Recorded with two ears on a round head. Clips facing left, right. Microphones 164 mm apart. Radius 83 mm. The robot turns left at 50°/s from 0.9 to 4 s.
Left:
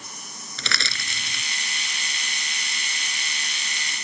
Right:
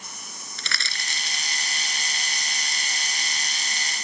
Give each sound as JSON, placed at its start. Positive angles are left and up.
{"t": 0.6, "sound": "crushing", "side_deg": 65}